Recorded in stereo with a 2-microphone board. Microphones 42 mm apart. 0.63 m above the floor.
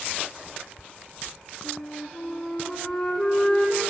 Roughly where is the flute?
Centre.